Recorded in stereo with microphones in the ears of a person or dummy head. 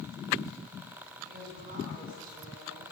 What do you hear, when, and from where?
1.2 s a woman speaking: 55° right (ahead or behind), 7.5 m; by 2.8 s 50° right (ahead or behind), 9 m